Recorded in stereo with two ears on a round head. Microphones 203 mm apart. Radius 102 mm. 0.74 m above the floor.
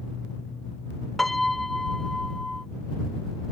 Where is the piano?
Centre (ahead or behind).